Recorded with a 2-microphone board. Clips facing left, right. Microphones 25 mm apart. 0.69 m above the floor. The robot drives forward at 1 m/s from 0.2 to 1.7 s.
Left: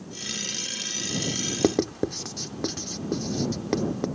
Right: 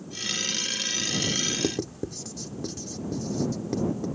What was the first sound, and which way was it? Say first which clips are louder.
Writing: left 6 dB; 60° left (ahead or behind).